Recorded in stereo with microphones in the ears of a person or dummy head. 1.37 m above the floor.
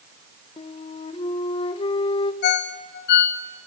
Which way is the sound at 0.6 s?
30° left (ahead or behind).